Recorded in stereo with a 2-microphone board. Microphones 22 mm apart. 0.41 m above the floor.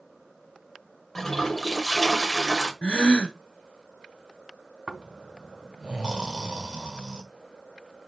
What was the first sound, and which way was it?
A toilet flushing, 20° left (ahead or behind).